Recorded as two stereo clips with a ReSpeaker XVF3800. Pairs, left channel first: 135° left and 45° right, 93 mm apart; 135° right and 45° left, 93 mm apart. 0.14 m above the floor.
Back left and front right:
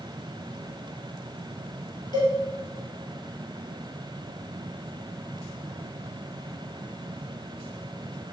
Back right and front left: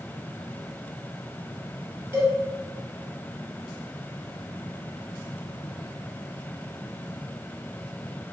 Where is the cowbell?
110° left, 0.8 m.